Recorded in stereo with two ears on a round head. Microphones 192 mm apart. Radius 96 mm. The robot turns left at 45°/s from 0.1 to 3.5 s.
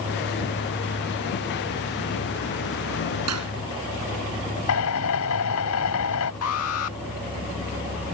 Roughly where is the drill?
Left.